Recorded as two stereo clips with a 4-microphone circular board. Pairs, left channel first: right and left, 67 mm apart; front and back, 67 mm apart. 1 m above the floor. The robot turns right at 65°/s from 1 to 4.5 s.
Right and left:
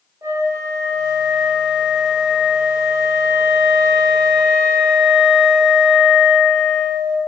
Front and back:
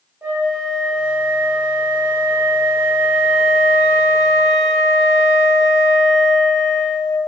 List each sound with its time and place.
0.2 s a flute: 115° left, 1.7 m; by 7.2 s 15° right, 1.7 m